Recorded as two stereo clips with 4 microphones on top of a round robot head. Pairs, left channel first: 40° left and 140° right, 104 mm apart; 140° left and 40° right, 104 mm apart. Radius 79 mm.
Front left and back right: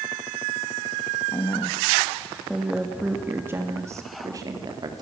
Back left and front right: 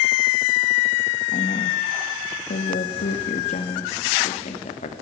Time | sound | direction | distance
1.3 | a woman speaking | 110° left | 2 m